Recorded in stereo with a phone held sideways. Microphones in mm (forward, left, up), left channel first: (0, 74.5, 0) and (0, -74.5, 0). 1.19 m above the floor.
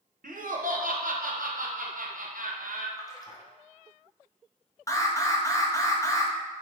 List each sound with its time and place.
0.2 s laughter: 75° right (ahead or behind), 0.8 m
3.0 s a splash: 25° left (ahead or behind), 0.6 m
4.9 s an alarm: 20° left (ahead or behind), 0.7 m